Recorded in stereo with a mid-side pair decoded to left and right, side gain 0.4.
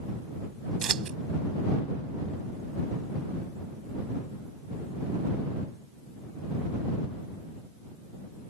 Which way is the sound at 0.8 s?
60° right.